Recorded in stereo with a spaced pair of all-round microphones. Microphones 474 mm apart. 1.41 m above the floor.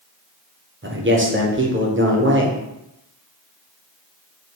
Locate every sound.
0.8 s a man speaking: 25° right (ahead or behind), 0.7 m